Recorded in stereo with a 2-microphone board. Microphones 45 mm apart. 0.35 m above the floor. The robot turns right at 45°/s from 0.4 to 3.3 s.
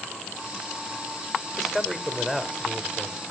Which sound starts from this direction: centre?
A man speaking, at 1.6 s.